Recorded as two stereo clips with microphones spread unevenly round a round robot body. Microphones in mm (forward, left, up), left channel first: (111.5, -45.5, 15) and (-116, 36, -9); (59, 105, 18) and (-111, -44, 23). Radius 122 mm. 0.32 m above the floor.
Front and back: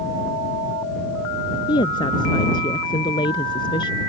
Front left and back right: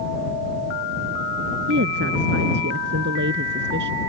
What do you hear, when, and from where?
1.7 s a woman speaking: 90° right